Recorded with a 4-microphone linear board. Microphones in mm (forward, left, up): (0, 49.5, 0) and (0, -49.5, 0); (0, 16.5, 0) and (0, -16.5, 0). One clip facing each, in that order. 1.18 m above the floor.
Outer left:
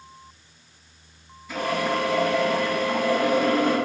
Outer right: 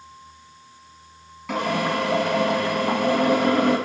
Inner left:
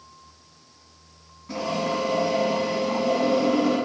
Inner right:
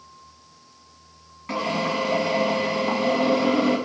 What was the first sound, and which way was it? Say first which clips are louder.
A drill: outer right 1 dB, inner right 2 dB; 80° right.